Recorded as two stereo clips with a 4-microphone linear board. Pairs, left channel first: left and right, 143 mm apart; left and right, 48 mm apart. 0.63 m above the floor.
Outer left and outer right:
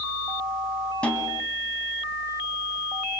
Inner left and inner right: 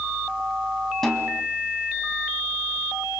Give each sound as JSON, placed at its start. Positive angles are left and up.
{"t": 1.0, "sound": "a snare drum", "side_deg": 10, "distance_m": 3.0}